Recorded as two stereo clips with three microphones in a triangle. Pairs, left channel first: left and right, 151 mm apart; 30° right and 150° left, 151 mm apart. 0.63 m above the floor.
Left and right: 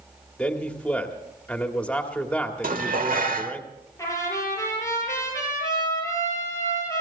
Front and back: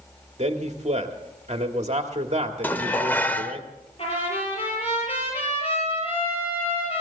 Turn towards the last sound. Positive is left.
turn(degrees=20)